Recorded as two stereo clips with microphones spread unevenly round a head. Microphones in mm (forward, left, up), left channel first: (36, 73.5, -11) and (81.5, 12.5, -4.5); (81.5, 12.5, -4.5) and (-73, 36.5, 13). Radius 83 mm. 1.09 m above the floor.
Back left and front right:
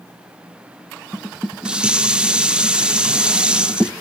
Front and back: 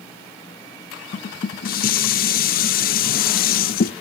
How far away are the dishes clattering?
About 0.7 m.